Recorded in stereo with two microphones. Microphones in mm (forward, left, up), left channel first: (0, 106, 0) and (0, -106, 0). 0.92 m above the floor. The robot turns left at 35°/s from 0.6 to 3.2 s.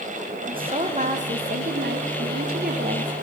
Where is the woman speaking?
35° right, 1.0 m; by 3.1 s 120° right, 1.0 m.